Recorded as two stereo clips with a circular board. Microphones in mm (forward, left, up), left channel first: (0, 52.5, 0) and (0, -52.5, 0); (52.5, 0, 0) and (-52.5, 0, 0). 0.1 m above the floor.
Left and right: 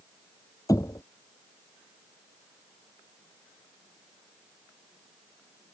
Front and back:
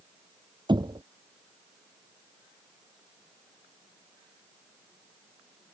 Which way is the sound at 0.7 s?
145° left.